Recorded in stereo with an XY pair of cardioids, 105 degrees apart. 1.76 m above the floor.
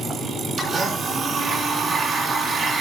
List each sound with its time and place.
0.6 s a blender: 45° right, 3.5 m